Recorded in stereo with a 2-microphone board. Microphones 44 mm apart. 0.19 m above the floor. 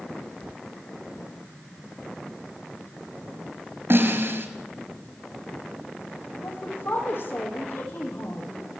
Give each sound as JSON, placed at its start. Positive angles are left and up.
{"t": 3.9, "sound": "a snare drum", "side_deg": -60, "distance_m": 4.0}
{"t": 6.4, "sound": "a woman speaking", "side_deg": 60, "distance_m": 8.0}